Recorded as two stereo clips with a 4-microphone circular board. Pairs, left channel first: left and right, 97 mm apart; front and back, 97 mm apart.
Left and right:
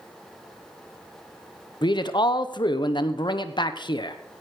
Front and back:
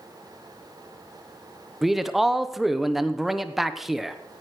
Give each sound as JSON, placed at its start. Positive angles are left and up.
{"t": 1.8, "sound": "a man speaking", "azimuth_deg": 95, "distance_m": 0.8}